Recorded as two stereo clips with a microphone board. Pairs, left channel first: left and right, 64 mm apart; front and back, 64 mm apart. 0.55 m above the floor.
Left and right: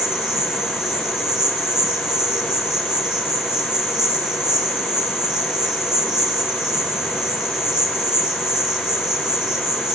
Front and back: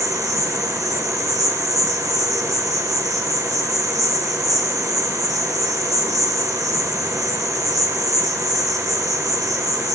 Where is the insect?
170° right, 3 m.